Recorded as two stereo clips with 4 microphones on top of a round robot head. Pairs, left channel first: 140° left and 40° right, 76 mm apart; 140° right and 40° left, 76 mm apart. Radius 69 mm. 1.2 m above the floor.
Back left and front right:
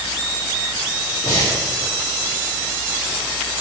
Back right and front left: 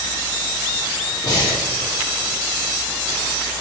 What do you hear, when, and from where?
1.2 s breathing: 175° right, 2 m